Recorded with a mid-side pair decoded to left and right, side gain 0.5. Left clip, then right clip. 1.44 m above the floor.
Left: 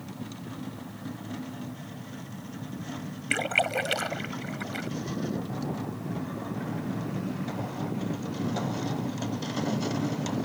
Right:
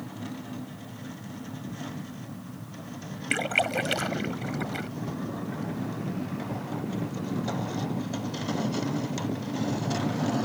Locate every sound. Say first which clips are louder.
3.3 s a splash: even; straight ahead